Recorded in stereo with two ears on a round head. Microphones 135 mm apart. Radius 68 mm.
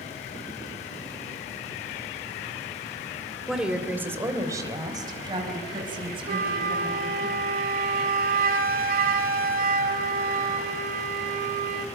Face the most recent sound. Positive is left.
turn(degrees=-65)  # may be behind; listen again after turning